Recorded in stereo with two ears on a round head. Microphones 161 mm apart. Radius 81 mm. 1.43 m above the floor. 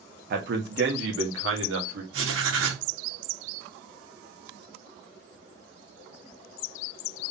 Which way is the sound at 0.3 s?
55° right (ahead or behind).